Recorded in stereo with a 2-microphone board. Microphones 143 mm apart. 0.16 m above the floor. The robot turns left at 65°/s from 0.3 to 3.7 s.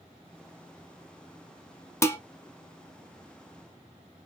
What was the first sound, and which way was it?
Dishes clattering, 20° left (ahead or behind).